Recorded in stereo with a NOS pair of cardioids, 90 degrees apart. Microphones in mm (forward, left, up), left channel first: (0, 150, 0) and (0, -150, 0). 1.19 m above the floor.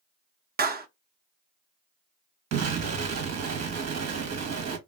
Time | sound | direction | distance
0.6 | a clap | 30° right | 0.8 m
2.5 | an explosion | 60° right | 1.2 m